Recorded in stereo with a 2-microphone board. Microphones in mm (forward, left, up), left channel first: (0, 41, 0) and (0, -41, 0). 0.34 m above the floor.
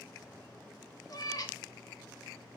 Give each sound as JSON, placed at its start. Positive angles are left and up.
{"t": 1.1, "sound": "a cat meowing", "side_deg": 50, "distance_m": 0.9}